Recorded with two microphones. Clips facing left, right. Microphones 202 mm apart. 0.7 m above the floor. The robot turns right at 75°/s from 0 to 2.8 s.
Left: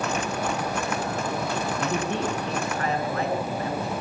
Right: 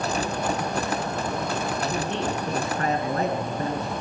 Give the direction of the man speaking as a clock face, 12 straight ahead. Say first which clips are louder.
Left 1 dB; 7 o'clock.